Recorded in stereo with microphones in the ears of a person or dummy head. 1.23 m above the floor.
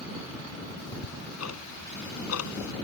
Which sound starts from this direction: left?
Ticking, at 0.8 s.